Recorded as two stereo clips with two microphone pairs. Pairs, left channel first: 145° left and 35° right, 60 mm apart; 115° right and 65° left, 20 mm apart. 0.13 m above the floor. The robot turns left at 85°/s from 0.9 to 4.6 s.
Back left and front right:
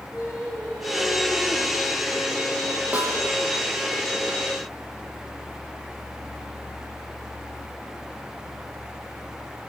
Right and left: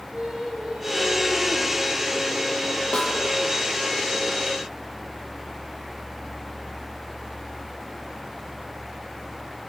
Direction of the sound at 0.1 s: 35° left.